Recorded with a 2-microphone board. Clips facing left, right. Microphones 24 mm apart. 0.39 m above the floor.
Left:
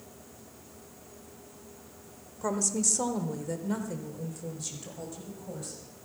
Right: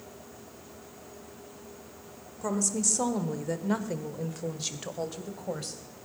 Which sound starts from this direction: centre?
A woman speaking, at 2.4 s.